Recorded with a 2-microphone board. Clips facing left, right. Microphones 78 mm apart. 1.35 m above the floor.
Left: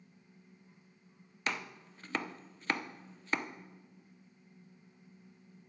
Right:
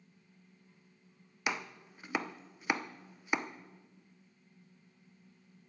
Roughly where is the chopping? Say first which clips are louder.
Right 1 dB; centre.